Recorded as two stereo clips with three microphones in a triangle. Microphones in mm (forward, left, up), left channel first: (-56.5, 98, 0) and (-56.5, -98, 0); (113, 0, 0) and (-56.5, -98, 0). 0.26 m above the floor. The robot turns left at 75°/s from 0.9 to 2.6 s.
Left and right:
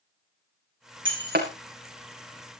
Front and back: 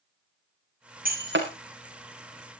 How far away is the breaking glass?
About 4 m.